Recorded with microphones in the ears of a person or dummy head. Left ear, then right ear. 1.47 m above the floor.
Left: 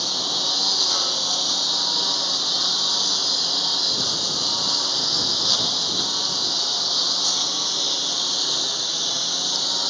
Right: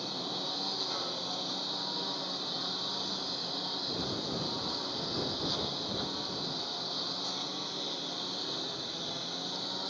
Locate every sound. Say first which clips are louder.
0.0 s a lawn mower: left 13 dB; 55° left (ahead or behind)